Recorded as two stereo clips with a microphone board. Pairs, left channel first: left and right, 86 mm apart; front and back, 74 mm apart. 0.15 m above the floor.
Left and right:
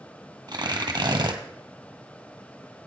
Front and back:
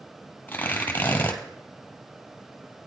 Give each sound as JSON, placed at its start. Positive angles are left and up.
{"t": 0.5, "sound": "tearing paper", "azimuth_deg": -65, "distance_m": 1.4}